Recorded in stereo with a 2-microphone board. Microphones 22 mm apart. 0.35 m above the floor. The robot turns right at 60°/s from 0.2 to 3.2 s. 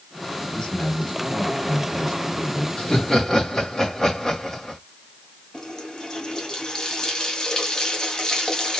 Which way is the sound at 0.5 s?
35° left.